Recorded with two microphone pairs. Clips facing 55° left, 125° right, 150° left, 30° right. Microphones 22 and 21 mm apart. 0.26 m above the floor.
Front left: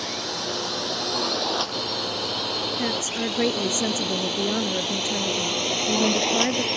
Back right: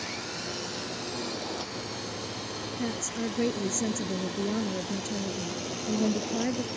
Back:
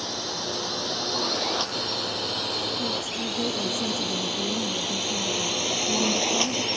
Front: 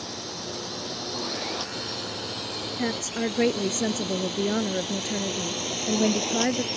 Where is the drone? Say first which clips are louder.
Front left 7 dB, back 5 dB; 90° left; by 6.8 s 80° left.